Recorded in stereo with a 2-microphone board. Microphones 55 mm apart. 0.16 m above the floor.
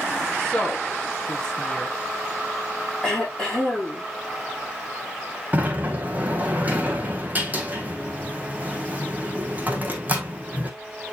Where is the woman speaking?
15° left (ahead or behind), 3 m.